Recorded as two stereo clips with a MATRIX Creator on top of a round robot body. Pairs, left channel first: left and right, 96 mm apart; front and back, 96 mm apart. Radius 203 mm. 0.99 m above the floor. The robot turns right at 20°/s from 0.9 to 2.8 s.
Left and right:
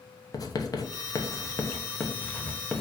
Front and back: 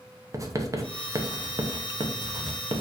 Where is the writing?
130° left, 1.2 m; by 2.8 s 170° left, 1.2 m.